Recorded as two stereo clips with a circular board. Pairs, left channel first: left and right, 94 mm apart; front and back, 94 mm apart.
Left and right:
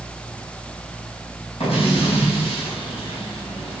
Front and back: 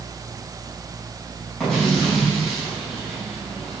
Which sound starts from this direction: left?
An explosion, at 1.6 s.